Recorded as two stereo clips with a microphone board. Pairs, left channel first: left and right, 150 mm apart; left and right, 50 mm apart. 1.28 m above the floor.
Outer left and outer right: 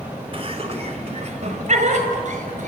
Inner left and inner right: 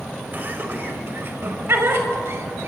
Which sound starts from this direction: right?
Laughter, at 0.3 s.